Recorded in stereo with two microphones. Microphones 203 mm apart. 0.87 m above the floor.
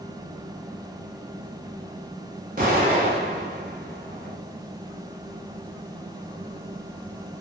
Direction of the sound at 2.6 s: 45° right (ahead or behind).